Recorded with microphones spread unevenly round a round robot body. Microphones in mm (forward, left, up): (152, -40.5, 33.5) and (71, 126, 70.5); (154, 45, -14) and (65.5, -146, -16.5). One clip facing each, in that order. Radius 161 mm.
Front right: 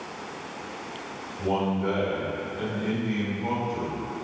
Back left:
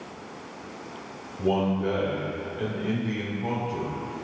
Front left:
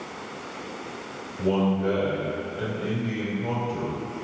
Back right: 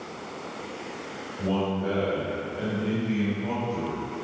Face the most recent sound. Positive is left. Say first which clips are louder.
# back left 2 dB, front left 4 dB
turn(degrees=60)